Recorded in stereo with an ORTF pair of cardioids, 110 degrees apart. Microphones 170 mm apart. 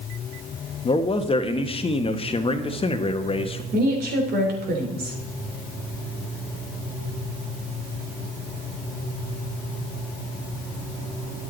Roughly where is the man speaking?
Ahead left.